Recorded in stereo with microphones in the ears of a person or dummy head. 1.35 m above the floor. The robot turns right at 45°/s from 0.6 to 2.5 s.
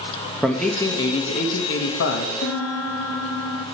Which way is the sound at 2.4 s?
70° left (ahead or behind).